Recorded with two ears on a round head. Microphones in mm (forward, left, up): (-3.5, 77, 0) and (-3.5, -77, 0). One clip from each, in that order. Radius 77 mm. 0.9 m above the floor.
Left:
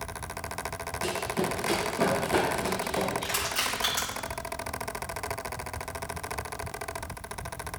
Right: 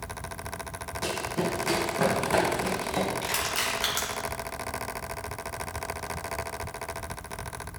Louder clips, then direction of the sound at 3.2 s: Right 1 dB; 20° right (ahead or behind).